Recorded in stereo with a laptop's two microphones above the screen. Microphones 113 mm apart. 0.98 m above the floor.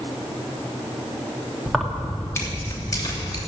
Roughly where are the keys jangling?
Centre.